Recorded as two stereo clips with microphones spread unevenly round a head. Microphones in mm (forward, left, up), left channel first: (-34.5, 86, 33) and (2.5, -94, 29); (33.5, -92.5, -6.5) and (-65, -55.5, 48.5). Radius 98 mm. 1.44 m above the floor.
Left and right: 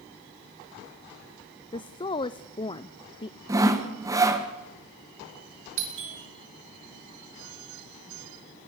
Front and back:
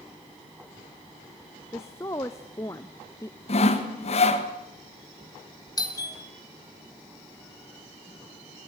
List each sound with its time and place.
1.7 s a woman speaking: 35° left, 0.6 m
3.5 s sawing: 5° right, 1.9 m
5.8 s a doorbell: 65° right, 4 m